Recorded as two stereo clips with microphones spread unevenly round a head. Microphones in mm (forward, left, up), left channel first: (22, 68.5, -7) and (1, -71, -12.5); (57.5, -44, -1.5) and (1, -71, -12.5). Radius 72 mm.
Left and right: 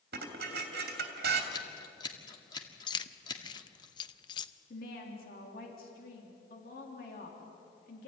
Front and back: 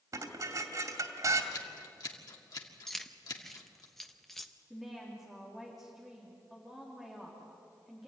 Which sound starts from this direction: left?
Keys jangling, at 2.9 s.